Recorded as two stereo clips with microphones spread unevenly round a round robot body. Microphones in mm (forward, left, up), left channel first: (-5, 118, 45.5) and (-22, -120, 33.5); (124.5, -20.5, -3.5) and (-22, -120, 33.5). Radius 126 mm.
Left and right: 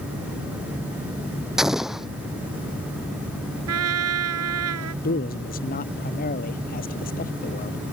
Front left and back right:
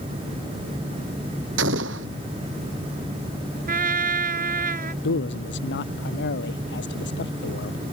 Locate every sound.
1.6 s an explosion: 175° left
3.7 s a trumpet: 110° right
5.0 s a man speaking: 30° left